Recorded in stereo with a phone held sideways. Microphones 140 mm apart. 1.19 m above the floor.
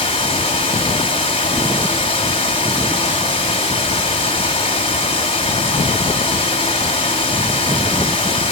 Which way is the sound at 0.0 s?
40° left (ahead or behind).